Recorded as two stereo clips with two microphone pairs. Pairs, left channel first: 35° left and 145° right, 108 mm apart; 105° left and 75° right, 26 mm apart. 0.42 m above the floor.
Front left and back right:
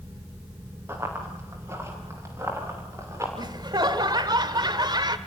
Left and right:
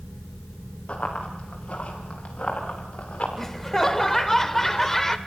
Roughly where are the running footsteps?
Behind left.